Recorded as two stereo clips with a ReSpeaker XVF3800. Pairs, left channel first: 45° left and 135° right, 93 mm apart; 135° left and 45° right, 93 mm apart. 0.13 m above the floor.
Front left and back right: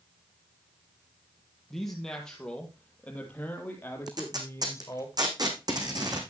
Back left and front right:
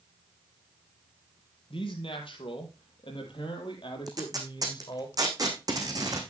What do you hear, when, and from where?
1.7 s a man speaking: 130° left, 3.5 m; by 5.1 s 100° left, 3 m
4.1 s tape being pulled: 90° right, 3 m